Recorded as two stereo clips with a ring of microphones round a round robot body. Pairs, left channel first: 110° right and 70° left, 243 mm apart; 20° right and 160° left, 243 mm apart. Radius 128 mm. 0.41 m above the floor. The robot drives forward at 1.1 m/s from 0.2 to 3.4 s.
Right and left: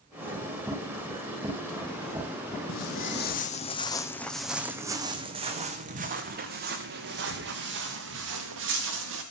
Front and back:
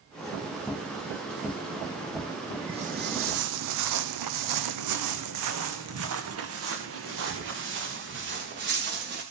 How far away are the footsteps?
About 1.0 m.